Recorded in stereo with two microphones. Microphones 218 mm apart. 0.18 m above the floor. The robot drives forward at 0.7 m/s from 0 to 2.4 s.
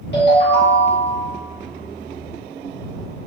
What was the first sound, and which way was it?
A ringtone, 60° left (ahead or behind).